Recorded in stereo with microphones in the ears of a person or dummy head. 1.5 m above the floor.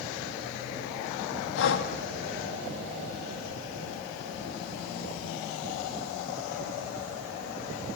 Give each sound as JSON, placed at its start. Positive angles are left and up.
{"t": 1.6, "sound": "breathing", "side_deg": 70, "distance_m": 2.0}